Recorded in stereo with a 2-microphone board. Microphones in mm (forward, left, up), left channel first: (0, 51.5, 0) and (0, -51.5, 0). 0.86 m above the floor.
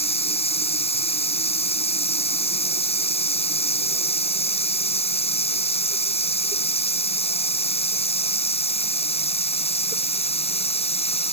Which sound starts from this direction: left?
Running water, at 0.0 s.